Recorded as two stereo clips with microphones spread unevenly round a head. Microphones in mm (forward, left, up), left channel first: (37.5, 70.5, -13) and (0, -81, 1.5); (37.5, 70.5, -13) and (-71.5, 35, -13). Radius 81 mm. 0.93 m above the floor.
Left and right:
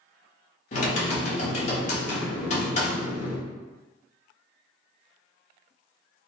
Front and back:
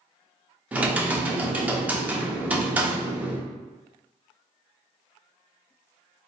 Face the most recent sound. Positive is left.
turn(degrees=125)